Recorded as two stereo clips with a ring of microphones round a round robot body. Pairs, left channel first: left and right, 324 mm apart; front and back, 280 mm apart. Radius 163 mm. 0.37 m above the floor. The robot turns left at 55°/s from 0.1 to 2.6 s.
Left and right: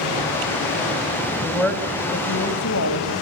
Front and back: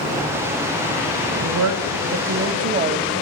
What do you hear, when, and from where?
1.4 s a woman speaking: 170° right, 2.5 m; by 3.1 s 125° left, 2.5 m